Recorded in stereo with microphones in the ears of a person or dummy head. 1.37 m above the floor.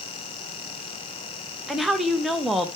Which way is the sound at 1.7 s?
5° right (ahead or behind).